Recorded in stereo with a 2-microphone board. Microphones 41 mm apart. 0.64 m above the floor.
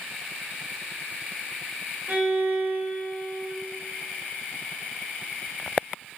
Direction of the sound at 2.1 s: 50° right (ahead or behind).